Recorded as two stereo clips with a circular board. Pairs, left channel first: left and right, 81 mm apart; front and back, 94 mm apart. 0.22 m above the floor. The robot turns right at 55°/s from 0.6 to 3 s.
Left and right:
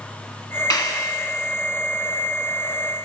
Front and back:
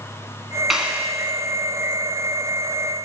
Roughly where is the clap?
Left.